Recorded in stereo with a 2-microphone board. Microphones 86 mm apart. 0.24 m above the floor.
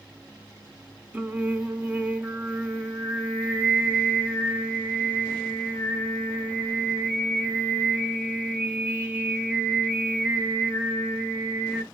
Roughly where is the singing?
Centre.